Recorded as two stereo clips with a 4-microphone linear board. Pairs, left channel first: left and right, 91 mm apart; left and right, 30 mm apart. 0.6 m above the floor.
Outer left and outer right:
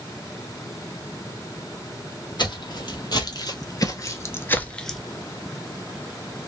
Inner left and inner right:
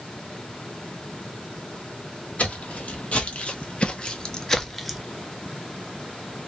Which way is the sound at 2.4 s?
55° left (ahead or behind).